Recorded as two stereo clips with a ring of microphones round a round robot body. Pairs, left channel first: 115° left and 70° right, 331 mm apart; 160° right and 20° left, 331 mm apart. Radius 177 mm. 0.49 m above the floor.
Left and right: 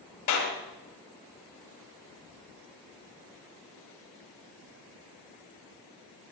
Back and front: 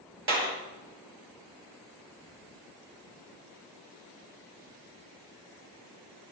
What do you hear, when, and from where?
0.3 s a clap: 75° left, 7.5 m